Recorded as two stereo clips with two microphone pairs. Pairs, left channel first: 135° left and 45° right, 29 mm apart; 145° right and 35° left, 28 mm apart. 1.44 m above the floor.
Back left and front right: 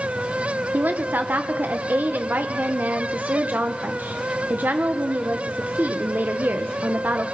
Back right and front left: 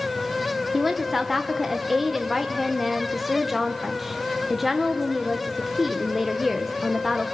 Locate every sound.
0.7 s a woman speaking: 45° right, 1.0 m